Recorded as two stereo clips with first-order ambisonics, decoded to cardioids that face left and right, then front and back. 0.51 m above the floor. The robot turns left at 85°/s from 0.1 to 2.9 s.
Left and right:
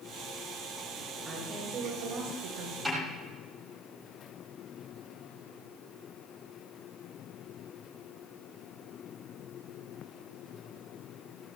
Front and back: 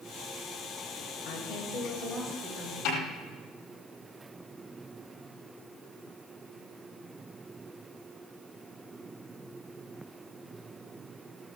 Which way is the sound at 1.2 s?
5° left.